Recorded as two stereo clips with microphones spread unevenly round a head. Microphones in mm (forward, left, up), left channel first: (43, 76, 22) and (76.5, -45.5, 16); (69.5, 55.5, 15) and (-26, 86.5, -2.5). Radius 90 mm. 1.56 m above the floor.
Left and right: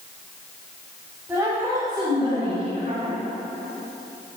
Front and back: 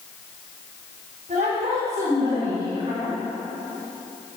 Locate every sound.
1.3 s a woman speaking: 155° right, 5.5 m; by 3.2 s 130° right, 6.5 m